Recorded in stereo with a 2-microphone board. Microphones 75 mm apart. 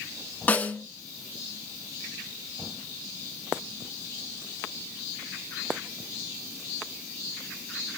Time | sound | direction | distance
0.5 | a snare drum | 20° left (ahead or behind) | 0.5 m